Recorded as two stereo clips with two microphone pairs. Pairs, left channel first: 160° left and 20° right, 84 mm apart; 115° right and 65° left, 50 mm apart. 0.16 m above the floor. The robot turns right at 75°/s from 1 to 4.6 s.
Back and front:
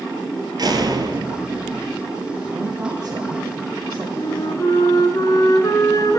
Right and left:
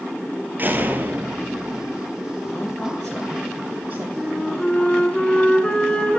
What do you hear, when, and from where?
0.6 s a door slam: 10° left, 2.5 m; by 2.0 s 85° left, 2.5 m
2.5 s a woman speaking: 75° right, 2 m; by 4.0 s 40° left, 2 m
4.1 s a flute: 145° left, 1.7 m; by 6.2 s straight behind, 1.7 m